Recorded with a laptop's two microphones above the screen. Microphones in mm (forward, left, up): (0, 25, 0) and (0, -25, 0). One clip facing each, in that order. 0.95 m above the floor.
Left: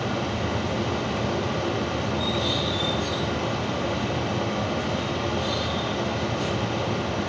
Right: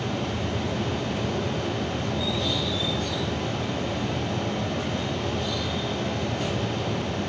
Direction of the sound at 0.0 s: 85° left.